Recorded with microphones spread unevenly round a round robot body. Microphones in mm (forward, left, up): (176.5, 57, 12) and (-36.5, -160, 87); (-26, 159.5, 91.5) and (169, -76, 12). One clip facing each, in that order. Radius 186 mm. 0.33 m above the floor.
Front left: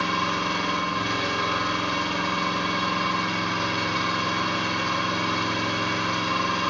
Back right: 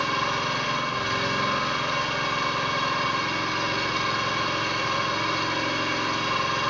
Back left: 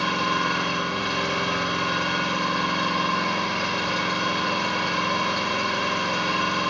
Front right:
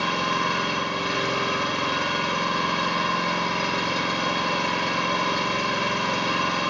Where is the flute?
No flute in this recording.